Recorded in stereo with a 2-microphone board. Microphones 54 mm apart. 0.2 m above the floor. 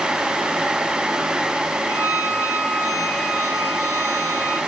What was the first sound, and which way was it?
A violin, 85° right.